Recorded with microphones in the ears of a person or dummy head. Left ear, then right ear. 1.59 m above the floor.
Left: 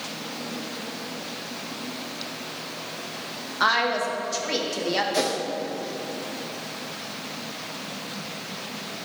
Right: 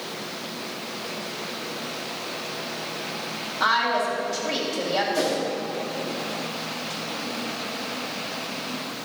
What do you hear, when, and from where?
3.6 s a woman speaking: 75° left (ahead or behind), 1.7 m
5.1 s a whoosh: 60° left (ahead or behind), 1.1 m